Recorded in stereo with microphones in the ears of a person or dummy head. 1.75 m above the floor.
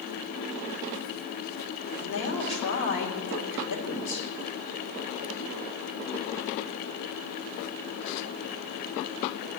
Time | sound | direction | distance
2.0 | a woman speaking | 60° left (ahead or behind) | 2 m